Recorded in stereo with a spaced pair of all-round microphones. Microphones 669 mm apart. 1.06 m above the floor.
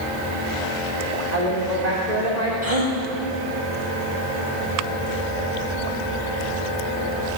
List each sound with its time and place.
1.3 s a woman speaking: 80° right, 3.5 m
2.6 s a gasp: 60° right (ahead or behind), 4.5 m